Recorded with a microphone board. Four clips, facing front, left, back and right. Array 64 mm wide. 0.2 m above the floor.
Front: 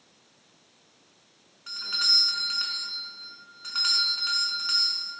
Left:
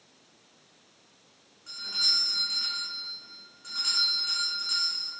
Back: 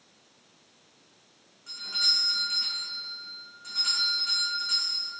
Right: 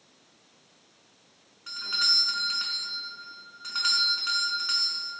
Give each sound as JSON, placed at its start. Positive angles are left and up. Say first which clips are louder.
{"t": 1.7, "sound": "a doorbell", "louder": "right 6 dB, front 3 dB", "azimuth_deg": -45, "distance_m": 3.0}